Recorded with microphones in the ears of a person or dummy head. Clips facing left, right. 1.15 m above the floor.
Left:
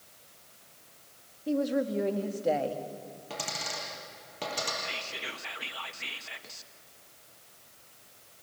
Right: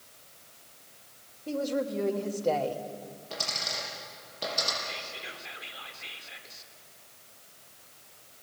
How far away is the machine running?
No machine running in this recording.